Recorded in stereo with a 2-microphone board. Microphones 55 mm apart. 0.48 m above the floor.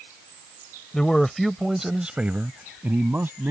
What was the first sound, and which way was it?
A man speaking, 15° left (ahead or behind).